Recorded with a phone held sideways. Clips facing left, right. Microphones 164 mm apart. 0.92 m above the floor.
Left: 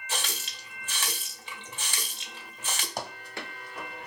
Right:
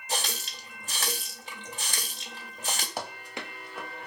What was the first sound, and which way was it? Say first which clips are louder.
A running tap: right 3 dB; 40° right (ahead or behind).